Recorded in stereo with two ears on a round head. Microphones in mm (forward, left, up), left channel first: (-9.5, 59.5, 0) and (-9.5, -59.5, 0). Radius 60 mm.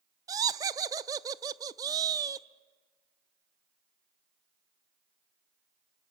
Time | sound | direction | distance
0.3 | laughter | 25° right (ahead or behind) | 0.6 m